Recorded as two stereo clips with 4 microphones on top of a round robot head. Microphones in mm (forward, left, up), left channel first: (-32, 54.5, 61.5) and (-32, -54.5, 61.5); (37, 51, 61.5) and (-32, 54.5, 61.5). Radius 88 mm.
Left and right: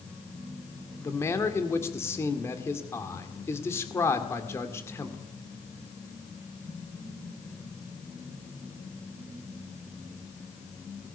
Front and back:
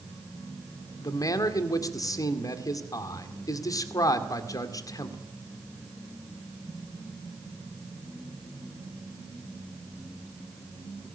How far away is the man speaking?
About 2 m.